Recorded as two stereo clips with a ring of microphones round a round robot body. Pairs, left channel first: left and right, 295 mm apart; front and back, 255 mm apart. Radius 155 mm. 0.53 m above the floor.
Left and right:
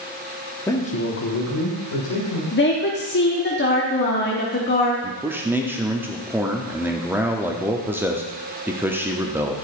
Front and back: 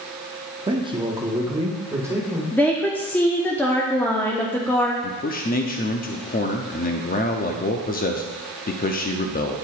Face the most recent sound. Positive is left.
turn(degrees=-15)